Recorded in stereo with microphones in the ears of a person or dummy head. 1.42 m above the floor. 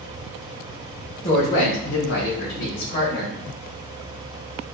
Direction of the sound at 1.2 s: 35° left (ahead or behind).